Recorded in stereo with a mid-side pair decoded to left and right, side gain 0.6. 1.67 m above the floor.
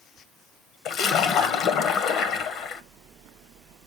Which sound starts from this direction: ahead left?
A splash, at 0.8 s.